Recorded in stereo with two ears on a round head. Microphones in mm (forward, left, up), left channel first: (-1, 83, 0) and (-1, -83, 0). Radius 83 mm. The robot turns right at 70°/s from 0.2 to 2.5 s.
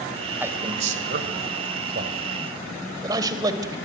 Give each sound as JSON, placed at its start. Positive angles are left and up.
{"t": 0.4, "sound": "a man speaking", "side_deg": -10, "distance_m": 2.0}